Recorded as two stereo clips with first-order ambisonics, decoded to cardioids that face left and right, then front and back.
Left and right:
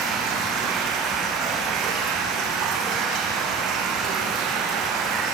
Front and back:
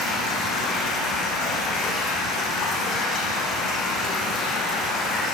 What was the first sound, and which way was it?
Running water, 50° right.